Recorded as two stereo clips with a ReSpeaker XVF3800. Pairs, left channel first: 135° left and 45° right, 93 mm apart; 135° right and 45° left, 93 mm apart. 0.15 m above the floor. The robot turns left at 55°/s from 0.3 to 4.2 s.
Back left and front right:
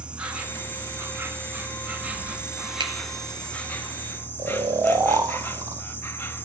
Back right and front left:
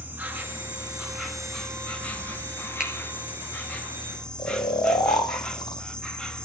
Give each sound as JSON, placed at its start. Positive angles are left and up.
{"t": 0.0, "sound": "an insect", "azimuth_deg": 10, "distance_m": 1.8}
{"t": 2.8, "sound": "a finger snap", "azimuth_deg": -35, "distance_m": 2.5}
{"t": 4.4, "sound": "snoring", "azimuth_deg": -95, "distance_m": 1.7}